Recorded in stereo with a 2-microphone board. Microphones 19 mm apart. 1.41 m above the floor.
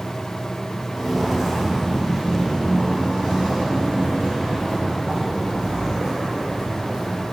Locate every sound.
0.9 s footsteps: 20° right (ahead or behind), 1.9 m; by 7.2 s 70° right (ahead or behind), 4 m